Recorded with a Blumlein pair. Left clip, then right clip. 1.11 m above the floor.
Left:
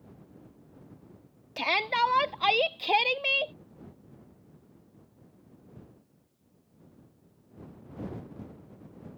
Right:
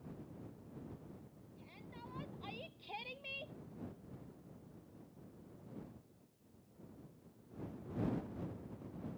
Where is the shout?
45° left; by 3.5 s 50° left.